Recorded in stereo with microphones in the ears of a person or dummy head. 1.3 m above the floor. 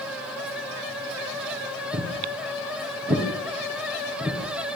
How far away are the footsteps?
About 4.5 m.